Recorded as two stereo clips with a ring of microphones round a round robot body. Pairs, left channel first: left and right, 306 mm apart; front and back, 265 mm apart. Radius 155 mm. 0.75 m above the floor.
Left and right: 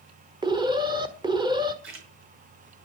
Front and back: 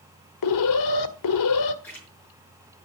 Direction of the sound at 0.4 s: 15° right.